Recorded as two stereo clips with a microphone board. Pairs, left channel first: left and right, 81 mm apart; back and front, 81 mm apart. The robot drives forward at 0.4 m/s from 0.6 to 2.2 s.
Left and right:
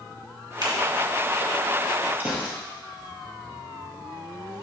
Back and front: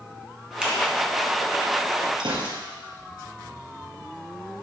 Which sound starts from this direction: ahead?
A gunshot, at 2.2 s.